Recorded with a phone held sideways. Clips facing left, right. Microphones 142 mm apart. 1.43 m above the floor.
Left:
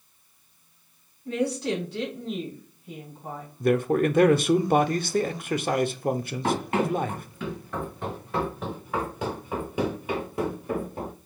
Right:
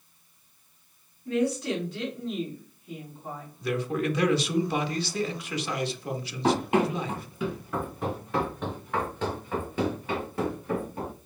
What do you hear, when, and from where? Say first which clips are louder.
1.2 s a woman speaking: even; 35° left (ahead or behind), 3 m
3.6 s a man speaking: left 7 dB; 50° left (ahead or behind), 0.5 m
6.4 s running footsteps: right 2 dB; 15° right (ahead or behind), 1.8 m; by 11.1 s 20° left (ahead or behind), 2 m